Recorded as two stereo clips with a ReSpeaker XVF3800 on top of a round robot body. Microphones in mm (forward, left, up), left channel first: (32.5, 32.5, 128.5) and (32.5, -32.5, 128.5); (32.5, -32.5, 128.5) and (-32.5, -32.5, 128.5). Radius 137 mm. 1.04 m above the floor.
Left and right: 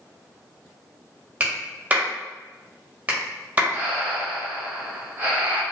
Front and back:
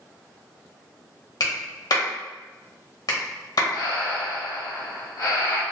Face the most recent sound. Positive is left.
turn(degrees=-25)